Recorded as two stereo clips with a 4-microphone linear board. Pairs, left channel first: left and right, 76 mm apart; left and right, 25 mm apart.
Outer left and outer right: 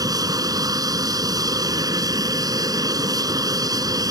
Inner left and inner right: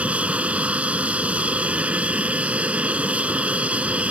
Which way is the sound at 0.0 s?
55° right (ahead or behind).